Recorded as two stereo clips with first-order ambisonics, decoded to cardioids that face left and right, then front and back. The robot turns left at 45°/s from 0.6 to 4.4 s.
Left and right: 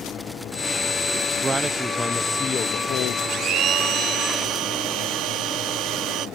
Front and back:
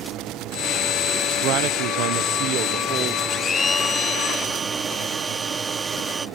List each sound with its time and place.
1.4 s a man speaking: 155° right; by 3.2 s 125° left
3.3 s a blender: 60° right; by 6.3 s 110° right